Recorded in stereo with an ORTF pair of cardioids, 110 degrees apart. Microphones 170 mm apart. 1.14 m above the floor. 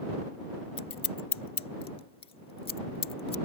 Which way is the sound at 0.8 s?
35° left.